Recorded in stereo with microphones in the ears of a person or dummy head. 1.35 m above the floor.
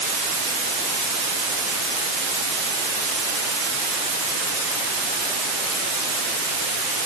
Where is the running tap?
No running tap in this recording.